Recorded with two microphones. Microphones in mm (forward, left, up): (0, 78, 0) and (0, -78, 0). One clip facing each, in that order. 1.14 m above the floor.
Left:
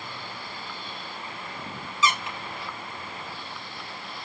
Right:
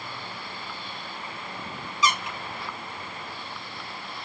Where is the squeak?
15° right (ahead or behind), 1.9 m.